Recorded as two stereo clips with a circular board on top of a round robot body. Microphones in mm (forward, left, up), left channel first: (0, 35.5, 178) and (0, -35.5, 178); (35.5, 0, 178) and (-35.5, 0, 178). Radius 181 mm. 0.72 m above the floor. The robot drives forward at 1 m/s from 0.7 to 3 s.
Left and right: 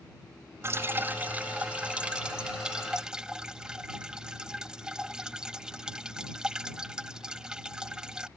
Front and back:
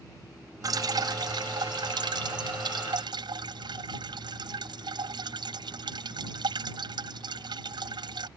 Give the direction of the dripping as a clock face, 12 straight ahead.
5 o'clock.